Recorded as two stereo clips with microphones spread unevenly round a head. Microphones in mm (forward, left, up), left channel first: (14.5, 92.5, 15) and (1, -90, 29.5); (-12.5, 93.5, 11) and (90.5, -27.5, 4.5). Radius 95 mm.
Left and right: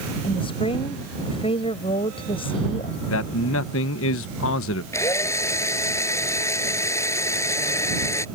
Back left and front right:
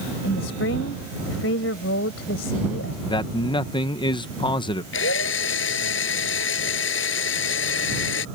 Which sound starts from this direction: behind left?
A woman speaking, at 0.2 s.